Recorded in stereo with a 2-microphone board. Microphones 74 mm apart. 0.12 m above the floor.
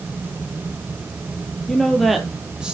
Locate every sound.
1.7 s a woman speaking: 10° left (ahead or behind), 2 m; by 2.7 s 15° right (ahead or behind), 2.5 m